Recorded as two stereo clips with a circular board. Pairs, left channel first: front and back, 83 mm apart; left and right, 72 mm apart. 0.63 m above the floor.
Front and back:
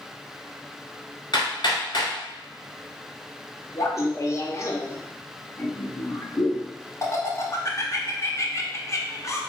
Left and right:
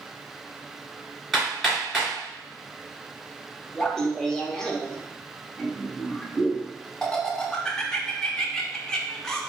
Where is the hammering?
5° right, 1.7 m.